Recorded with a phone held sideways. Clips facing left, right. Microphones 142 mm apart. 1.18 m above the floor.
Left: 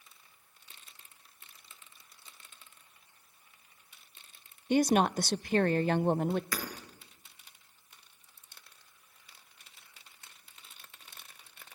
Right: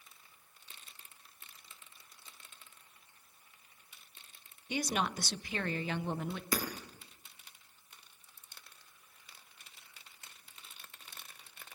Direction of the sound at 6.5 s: 25° right (ahead or behind).